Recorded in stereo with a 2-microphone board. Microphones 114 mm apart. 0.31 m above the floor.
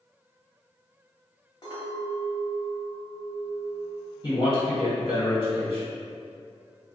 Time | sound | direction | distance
1.6 | a clink | 45° left (ahead or behind) | 1.0 m
4.2 | a man speaking | 45° left (ahead or behind) | 1.7 m